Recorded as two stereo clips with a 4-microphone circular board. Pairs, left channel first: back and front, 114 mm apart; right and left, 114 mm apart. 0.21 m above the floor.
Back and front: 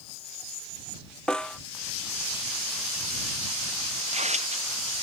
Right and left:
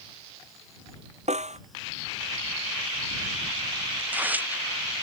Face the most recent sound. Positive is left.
turn(degrees=15)